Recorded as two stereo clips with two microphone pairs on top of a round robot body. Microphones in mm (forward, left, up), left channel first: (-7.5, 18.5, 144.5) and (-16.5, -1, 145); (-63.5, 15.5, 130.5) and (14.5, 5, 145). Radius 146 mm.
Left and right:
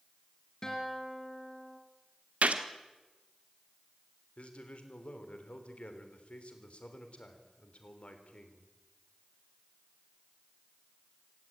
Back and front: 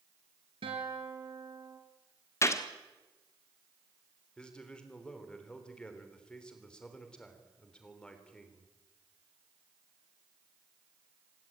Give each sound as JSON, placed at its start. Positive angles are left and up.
{"t": 0.6, "sound": "a guitar", "azimuth_deg": -5, "distance_m": 3.0}
{"t": 2.4, "sound": "a gunshot", "azimuth_deg": -125, "distance_m": 1.2}
{"t": 4.4, "sound": "a man speaking", "azimuth_deg": 95, "distance_m": 3.5}